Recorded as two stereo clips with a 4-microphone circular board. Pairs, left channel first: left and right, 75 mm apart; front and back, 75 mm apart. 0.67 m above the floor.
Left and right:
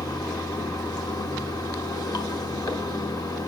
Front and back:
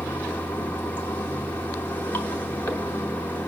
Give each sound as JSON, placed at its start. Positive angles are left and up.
{"t": 0.0, "sound": "running water", "azimuth_deg": 65, "distance_m": 1.3}